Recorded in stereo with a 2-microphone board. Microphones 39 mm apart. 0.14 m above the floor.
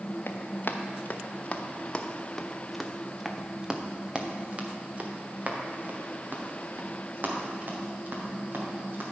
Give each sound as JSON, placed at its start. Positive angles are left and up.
{"t": 0.3, "sound": "running footsteps", "side_deg": 55, "distance_m": 1.5}